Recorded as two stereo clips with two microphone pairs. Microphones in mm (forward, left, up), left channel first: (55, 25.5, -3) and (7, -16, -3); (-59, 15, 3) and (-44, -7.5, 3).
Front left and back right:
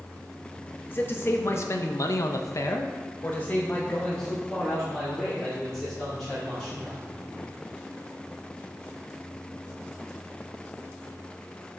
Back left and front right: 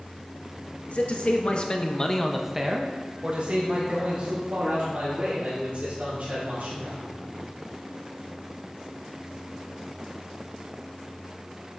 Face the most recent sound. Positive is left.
turn(degrees=-50)